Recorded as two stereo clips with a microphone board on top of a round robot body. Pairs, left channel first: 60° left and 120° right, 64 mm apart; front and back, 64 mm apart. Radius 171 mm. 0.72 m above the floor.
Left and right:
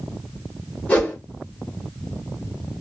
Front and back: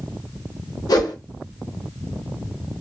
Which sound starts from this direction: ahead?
A whoosh, at 0.9 s.